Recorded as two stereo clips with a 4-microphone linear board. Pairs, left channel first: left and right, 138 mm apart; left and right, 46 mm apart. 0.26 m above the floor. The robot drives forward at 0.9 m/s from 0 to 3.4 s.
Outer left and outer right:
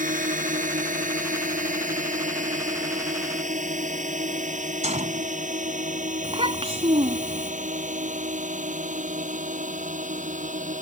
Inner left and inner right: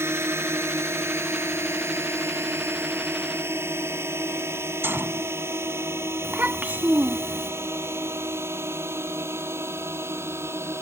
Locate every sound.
0.0 s a drone: 70° right (ahead or behind); by 10.8 s 65° right (ahead or behind)
4.8 s a gunshot: 55° right (ahead or behind)
6.2 s a child speaking: 45° right (ahead or behind)